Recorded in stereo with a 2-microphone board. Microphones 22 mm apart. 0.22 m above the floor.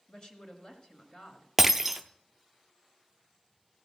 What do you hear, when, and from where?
0.1 s a woman speaking: 45° left (ahead or behind), 2 m
1.6 s breaking glass: 20° right (ahead or behind), 0.6 m